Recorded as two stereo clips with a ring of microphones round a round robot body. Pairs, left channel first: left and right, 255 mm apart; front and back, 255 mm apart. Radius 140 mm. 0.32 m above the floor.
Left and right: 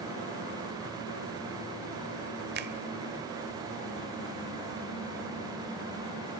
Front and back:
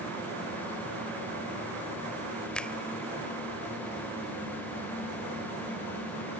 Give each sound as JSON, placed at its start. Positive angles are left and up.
{"t": 2.5, "sound": "a finger snap", "azimuth_deg": -85, "distance_m": 1.2}